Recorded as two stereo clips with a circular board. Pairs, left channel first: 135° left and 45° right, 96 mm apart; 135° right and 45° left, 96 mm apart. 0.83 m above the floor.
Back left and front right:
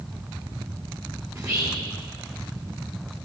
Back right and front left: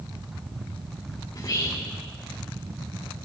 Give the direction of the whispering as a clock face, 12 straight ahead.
3 o'clock.